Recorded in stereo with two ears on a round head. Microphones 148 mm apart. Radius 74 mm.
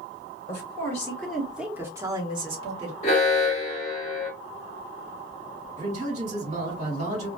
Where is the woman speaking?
30° left (ahead or behind), 1.1 m; by 2.9 s 40° right (ahead or behind), 1.4 m.